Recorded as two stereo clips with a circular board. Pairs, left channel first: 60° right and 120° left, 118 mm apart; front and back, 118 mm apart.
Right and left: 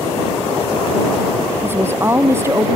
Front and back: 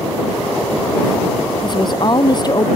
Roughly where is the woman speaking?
Ahead left.